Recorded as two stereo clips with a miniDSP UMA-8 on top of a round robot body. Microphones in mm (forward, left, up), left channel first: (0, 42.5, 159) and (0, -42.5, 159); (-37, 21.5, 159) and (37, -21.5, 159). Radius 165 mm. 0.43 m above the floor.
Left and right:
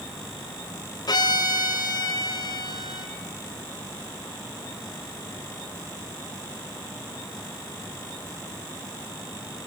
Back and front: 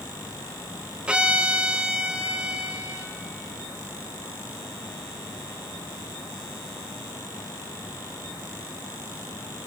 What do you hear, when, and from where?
1.1 s a violin: 50° left, 0.9 m